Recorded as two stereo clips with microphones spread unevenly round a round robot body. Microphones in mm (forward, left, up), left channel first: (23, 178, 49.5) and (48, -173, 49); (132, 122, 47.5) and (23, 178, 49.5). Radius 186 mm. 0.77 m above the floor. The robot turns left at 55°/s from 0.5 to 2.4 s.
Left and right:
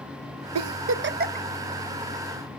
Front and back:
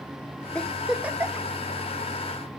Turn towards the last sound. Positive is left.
turn(degrees=155)